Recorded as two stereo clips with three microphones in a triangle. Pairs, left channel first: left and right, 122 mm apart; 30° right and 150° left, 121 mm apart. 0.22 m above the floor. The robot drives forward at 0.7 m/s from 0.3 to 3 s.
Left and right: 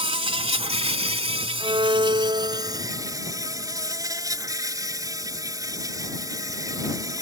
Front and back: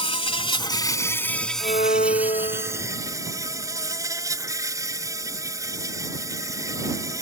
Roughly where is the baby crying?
I don't hear a baby crying.